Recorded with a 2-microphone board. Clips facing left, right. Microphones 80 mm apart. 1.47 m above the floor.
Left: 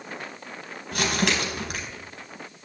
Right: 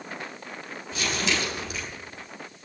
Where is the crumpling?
60° left (ahead or behind), 4 m.